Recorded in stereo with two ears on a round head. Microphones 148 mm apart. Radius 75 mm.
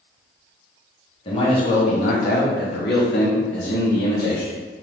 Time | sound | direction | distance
1.2 | a man speaking | 35° left (ahead or behind) | 1.3 m